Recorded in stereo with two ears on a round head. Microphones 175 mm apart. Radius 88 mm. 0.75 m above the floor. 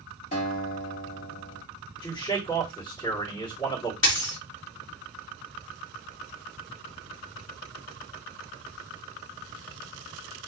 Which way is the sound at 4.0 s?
65° left (ahead or behind).